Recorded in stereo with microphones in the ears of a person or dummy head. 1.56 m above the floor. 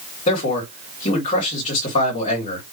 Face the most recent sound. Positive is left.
turn(degrees=40)  # may be behind; listen again after turning